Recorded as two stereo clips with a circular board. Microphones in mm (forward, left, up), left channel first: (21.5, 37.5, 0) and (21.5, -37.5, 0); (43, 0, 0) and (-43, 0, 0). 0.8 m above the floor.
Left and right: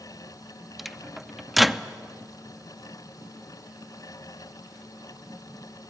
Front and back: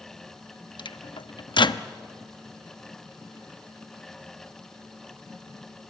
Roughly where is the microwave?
Ahead.